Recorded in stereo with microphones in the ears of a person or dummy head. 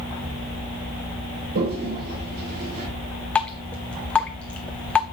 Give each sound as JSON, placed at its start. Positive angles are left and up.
{"t": 1.6, "sound": "a toilet flushing", "side_deg": -55, "distance_m": 3.0}
{"t": 3.4, "sound": "dripping", "side_deg": 5, "distance_m": 0.6}